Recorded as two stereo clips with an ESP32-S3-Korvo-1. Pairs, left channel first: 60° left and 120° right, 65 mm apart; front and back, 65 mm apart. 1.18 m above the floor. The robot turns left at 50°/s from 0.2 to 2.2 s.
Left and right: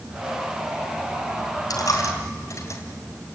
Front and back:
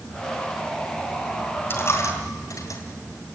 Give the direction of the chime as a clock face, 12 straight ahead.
I don't hear a chime.